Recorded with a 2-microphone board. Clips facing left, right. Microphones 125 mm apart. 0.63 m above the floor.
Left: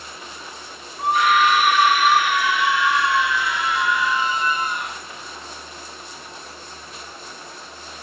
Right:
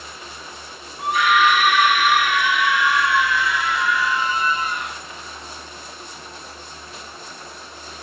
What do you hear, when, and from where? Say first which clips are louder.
1.0 s a scream: even; 20° left (ahead or behind), 1.9 m; by 5.0 s centre (ahead or behind), 3.5 m